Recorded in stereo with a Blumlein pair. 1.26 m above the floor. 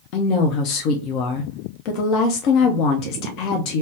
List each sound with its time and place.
0.1 s a woman speaking: 40° left, 0.5 m